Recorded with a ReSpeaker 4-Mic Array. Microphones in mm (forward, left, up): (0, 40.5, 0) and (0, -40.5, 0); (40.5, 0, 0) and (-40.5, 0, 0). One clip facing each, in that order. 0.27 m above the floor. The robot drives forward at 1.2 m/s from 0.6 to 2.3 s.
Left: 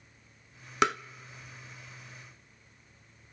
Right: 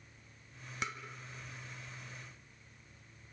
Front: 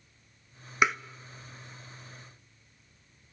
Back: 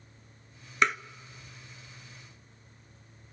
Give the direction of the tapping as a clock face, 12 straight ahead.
9 o'clock.